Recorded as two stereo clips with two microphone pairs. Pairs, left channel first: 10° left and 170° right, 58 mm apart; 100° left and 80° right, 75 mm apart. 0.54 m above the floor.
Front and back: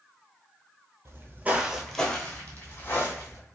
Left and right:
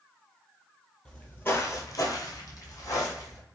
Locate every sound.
1.1 s footsteps: 175° left, 0.8 m; by 3.4 s 50° left, 1.8 m